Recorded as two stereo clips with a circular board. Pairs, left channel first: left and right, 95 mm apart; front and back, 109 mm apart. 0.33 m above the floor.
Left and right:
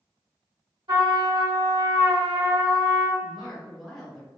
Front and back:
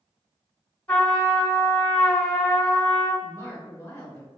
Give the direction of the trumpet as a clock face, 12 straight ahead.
2 o'clock.